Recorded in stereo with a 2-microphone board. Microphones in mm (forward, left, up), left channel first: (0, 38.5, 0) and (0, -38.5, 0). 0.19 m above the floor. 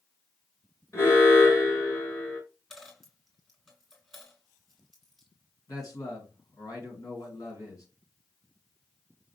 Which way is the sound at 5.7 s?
55° left (ahead or behind).